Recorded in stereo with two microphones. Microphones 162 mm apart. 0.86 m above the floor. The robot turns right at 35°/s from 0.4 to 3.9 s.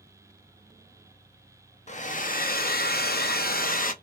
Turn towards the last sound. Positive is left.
turn(degrees=120)